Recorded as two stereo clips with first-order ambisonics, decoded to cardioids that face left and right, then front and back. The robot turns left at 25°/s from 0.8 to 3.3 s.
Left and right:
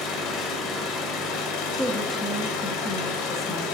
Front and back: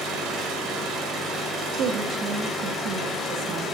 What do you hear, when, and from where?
0.0 s an engine running: 130° left, 1.7 m; by 3.8 s 70° left, 1.7 m
1.7 s a woman speaking: 175° right, 0.8 m; by 3.6 s 145° left, 0.8 m